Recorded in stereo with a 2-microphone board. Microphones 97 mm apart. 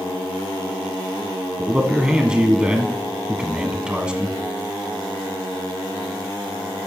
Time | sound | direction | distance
1.6 | a man speaking | 10° right (ahead or behind) | 1.3 m